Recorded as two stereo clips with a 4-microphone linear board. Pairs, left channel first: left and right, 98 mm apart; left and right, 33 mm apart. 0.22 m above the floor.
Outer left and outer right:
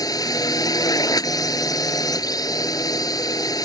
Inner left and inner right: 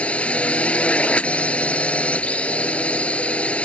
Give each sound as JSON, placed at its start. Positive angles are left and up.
{"t": 0.0, "sound": "a drone", "side_deg": 40}